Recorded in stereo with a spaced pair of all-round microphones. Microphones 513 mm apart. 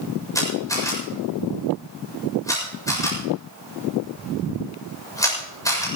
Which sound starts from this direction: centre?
A camera shutter, at 0.3 s.